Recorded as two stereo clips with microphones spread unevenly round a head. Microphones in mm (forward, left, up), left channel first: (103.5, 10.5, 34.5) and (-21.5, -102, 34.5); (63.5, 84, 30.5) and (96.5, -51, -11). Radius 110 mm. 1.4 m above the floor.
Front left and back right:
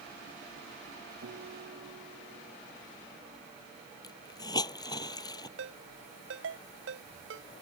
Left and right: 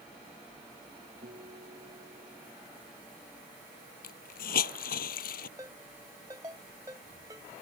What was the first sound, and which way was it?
A guitar, 130° right.